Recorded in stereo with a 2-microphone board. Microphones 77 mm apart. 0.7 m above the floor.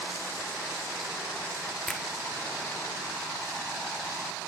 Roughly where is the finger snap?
Centre.